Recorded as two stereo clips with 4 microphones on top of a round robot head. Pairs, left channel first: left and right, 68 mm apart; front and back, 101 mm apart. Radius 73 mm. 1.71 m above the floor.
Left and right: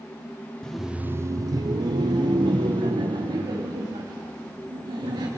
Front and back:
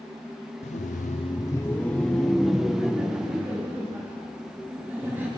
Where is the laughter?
10° left, 0.5 m; by 5.3 s 105° right, 3 m.